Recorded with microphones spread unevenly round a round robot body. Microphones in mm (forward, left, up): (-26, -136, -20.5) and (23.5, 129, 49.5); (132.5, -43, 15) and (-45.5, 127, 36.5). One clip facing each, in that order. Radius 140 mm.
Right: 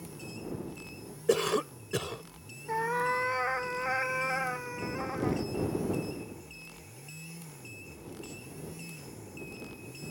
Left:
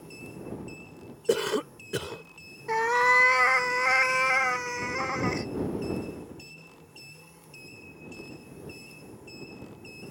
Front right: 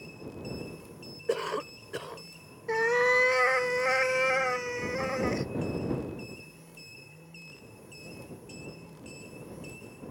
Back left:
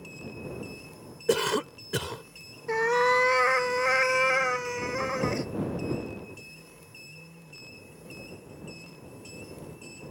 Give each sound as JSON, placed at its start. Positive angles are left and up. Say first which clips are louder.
{"t": 1.3, "sound": "a cough", "louder": "left 1 dB, back left 5 dB", "azimuth_deg": 175}
{"t": 2.7, "sound": "a cat meowing", "louder": "left 5 dB, back left 1 dB", "azimuth_deg": 50}